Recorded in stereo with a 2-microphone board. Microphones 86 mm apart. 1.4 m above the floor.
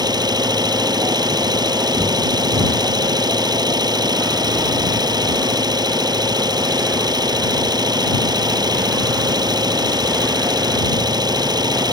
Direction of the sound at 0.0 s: 50° right (ahead or behind).